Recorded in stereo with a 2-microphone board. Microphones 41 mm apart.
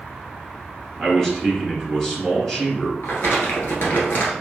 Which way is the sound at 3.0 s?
65° left (ahead or behind).